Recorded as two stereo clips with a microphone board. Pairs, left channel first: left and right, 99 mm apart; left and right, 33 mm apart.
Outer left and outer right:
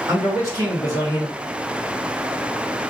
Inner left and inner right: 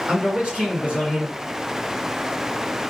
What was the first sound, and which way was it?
A man speaking, 35° right (ahead or behind).